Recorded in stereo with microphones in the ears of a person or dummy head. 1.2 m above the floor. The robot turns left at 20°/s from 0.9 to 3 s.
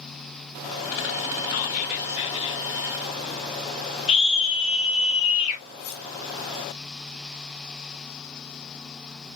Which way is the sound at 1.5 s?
45° left (ahead or behind).